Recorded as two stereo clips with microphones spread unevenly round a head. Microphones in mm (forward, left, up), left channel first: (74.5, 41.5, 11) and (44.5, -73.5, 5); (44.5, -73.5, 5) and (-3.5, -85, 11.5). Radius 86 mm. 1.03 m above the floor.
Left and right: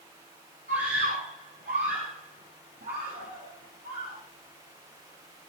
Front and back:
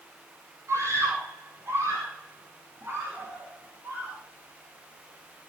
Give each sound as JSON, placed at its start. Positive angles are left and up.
{"t": 0.7, "sound": "a scream", "azimuth_deg": -140, "distance_m": 9.5}